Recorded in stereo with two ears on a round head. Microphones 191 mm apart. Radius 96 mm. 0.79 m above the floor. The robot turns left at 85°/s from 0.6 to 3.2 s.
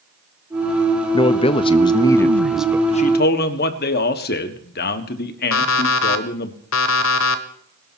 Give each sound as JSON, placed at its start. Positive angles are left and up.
{"t": 1.1, "sound": "a man speaking", "side_deg": 20, "distance_m": 0.7}
{"t": 2.9, "sound": "a man speaking", "side_deg": 25, "distance_m": 1.4}
{"t": 5.5, "sound": "an alarm clock", "side_deg": 65, "distance_m": 1.3}